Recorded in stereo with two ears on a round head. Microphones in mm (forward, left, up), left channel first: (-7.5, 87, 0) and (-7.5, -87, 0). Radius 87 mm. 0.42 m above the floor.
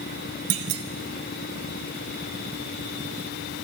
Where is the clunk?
55° right (ahead or behind), 0.9 m.